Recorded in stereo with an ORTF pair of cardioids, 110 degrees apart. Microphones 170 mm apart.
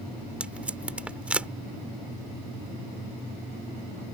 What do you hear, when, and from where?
0.4 s tape being pulled: 5° right